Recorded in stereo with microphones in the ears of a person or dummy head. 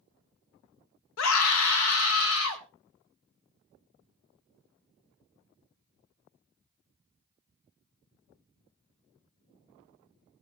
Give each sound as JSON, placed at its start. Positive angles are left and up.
{"t": 1.2, "sound": "a scream", "side_deg": 80, "distance_m": 1.0}